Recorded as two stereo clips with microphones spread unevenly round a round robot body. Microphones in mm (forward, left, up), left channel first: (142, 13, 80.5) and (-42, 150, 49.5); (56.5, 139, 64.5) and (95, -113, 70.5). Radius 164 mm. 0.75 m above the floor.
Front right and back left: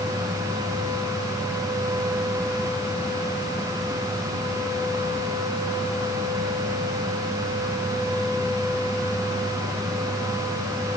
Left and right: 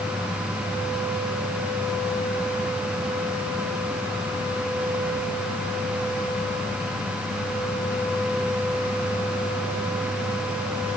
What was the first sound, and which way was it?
Only background noise.